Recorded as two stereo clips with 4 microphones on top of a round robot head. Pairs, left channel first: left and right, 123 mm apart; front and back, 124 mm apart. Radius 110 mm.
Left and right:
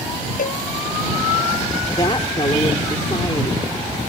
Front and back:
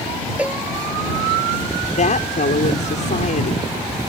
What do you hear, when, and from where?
0.4 s a cowbell: 100° left
1.9 s a woman speaking: 20° left